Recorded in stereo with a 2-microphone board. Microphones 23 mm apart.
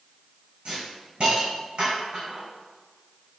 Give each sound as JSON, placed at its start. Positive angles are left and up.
{"t": 0.7, "sound": "a hiss", "side_deg": -50, "distance_m": 1.8}